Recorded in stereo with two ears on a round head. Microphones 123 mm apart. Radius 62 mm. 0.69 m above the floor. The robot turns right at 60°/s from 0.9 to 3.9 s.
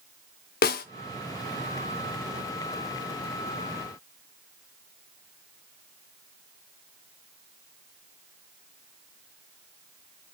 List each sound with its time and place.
0.6 s a snare drum: 70° left (ahead or behind), 0.7 m